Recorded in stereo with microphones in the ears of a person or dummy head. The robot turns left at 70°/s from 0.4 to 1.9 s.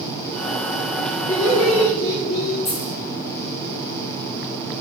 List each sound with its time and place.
1.3 s laughter: 165° left, 4 m; by 2.5 s 120° left, 4 m
2.6 s a dropped coin: 35° left (ahead or behind), 3.5 m